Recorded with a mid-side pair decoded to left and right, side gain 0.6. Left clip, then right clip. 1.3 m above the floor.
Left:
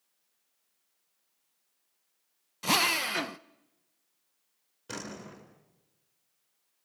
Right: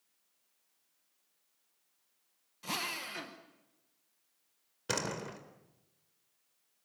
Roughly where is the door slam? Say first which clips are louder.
Right 5 dB; ahead right.